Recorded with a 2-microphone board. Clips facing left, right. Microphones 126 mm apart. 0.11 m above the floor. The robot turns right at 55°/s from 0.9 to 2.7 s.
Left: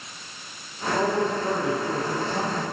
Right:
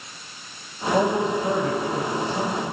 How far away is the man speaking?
About 4 m.